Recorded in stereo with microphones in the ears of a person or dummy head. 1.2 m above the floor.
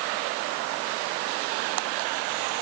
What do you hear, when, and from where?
Only background noise.